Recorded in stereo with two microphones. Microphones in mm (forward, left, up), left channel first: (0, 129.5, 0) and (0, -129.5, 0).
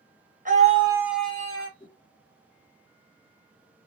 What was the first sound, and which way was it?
A scream, 30° right (ahead or behind).